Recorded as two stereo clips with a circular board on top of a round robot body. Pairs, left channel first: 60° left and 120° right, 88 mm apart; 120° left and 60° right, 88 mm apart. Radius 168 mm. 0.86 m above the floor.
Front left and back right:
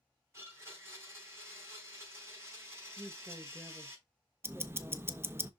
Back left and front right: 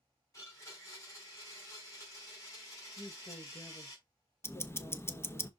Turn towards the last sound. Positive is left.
turn(degrees=180)